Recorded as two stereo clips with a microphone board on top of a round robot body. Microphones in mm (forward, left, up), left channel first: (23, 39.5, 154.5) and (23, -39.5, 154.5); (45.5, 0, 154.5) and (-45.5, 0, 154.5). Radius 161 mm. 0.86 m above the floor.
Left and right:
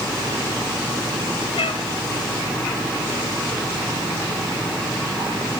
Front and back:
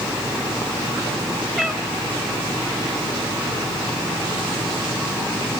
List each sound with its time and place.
1.6 s a cat meowing: 95° left, 2.5 m